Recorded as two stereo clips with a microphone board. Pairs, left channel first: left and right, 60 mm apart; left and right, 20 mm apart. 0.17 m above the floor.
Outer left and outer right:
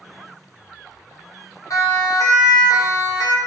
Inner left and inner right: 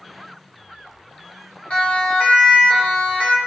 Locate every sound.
1.7 s a siren: 60° left (ahead or behind), 6.5 m; by 3.4 s 65° left (ahead or behind), 6.5 m